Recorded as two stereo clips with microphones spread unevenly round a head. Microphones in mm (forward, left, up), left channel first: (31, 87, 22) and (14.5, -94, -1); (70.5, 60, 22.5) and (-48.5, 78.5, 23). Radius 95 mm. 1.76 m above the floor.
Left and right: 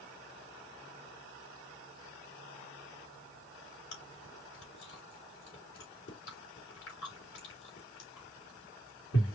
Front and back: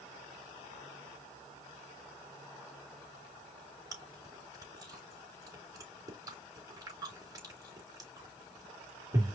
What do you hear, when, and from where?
3.9 s chewing: 110° left, 3 m